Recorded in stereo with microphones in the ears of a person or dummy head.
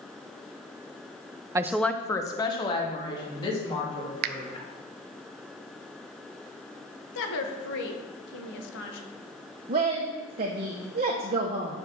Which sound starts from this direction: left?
A woman speaking, at 7.2 s.